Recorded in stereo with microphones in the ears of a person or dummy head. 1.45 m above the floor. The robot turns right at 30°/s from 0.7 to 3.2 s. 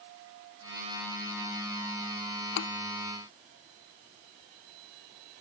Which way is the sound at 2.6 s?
70° left (ahead or behind).